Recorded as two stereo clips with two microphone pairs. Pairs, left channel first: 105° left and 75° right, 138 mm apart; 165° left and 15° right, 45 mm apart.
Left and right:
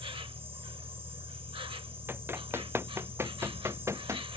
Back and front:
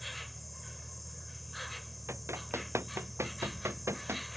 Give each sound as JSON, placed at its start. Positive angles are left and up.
{"t": 0.0, "sound": "an insect", "azimuth_deg": -105}
{"t": 2.1, "sound": "running footsteps", "azimuth_deg": 0}